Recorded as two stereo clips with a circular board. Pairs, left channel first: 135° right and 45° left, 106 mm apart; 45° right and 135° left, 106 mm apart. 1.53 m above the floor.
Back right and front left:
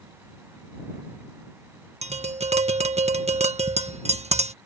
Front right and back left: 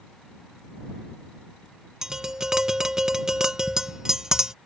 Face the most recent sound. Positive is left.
turn(degrees=50)